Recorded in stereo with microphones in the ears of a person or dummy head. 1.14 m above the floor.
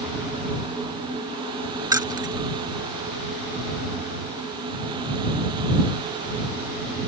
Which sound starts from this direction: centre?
Keys jangling, at 1.9 s.